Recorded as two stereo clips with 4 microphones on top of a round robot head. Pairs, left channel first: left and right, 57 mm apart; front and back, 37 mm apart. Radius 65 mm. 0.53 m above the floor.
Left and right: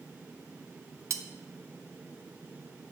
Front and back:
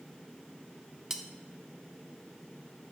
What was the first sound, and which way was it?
Cutlery clinking, 105° right.